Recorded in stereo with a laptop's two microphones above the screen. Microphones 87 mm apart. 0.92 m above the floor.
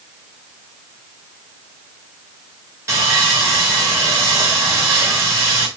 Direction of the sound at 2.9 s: 35° right (ahead or behind).